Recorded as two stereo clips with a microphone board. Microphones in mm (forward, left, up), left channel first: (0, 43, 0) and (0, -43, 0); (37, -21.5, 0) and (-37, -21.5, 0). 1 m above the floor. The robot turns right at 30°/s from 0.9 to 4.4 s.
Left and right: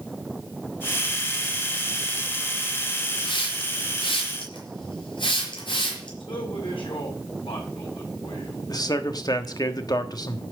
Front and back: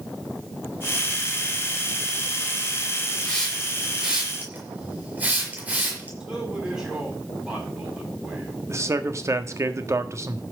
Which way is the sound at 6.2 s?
95° left.